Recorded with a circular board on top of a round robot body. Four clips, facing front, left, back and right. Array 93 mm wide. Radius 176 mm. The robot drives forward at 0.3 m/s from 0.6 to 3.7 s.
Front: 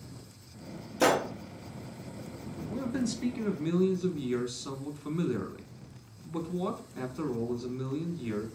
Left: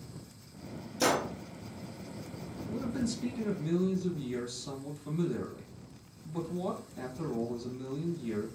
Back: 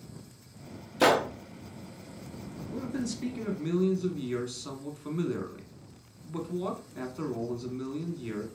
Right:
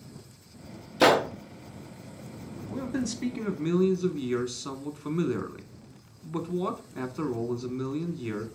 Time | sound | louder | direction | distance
1.0 | a gunshot | right 8 dB, back 2 dB | 105° right | 0.5 m
2.7 | a man speaking | right 2 dB, front 2 dB | 80° right | 1.1 m